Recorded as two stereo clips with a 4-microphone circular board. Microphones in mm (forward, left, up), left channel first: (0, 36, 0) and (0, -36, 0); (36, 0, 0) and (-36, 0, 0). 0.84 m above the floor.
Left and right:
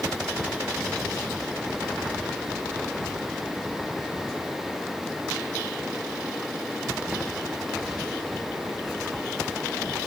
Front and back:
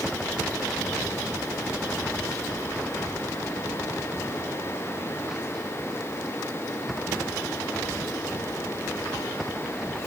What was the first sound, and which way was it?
Only background noise.